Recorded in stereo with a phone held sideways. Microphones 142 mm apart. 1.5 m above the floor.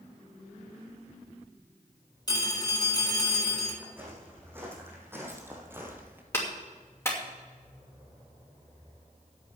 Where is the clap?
20° left (ahead or behind), 2.5 m.